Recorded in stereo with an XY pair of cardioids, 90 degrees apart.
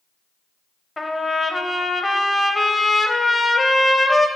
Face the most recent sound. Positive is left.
turn(degrees=15)